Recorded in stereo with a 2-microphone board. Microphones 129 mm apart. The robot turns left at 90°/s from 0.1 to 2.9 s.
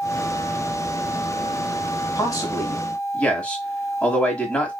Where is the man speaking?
90° left, 1.4 m; by 4.7 s 20° left, 1.4 m.